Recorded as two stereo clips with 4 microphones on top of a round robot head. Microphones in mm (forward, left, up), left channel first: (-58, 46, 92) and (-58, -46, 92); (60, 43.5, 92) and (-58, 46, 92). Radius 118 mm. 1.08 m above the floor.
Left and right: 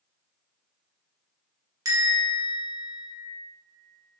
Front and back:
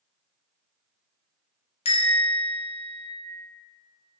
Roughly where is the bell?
Ahead right.